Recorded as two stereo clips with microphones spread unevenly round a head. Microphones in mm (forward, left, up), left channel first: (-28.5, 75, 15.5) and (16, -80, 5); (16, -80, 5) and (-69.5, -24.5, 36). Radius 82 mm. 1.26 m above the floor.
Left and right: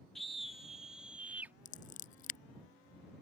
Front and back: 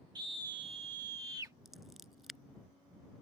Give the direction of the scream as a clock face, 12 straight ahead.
5 o'clock.